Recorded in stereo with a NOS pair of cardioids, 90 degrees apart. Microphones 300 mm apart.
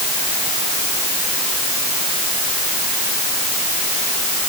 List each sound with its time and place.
Only background noise.